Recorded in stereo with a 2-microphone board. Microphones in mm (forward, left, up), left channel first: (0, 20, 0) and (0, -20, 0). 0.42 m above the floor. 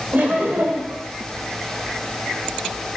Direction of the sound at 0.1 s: 40° right (ahead or behind).